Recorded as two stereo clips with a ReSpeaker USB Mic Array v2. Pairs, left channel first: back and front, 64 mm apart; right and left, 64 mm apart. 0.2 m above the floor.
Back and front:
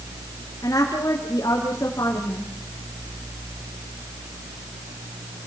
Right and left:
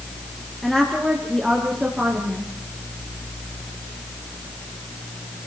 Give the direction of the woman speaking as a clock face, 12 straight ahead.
6 o'clock.